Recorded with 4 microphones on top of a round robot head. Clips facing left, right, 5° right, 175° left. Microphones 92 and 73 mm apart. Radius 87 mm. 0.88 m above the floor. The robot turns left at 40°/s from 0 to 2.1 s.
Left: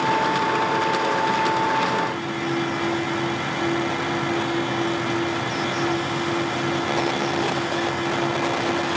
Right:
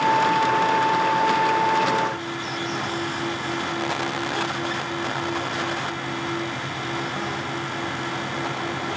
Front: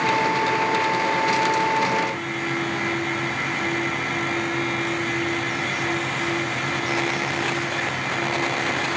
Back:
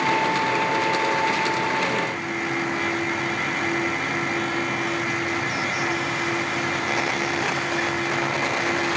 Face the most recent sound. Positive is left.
No sound to turn to.